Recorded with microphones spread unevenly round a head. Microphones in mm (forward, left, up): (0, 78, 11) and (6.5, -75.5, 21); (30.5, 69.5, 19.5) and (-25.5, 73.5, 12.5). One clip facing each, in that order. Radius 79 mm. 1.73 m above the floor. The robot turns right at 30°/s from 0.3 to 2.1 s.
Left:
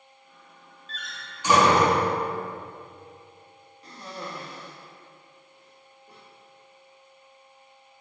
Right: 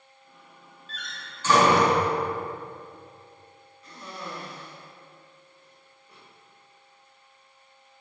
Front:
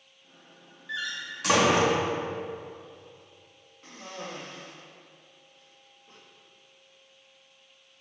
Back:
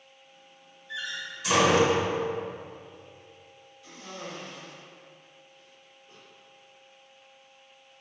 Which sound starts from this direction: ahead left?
A cough, at 3.8 s.